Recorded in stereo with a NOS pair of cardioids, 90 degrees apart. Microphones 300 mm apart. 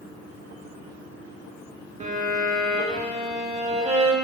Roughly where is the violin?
Ahead right.